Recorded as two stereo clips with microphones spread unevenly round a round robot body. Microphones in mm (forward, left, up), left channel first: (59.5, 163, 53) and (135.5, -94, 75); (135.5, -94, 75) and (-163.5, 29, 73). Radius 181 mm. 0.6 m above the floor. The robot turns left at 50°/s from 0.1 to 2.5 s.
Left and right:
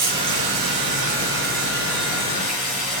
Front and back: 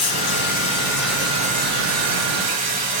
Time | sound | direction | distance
0.0 | running water | 65° right | 5.5 m